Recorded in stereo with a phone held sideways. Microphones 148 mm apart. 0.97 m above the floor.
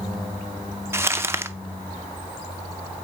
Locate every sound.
0.9 s crumpling: 15° right (ahead or behind), 0.5 m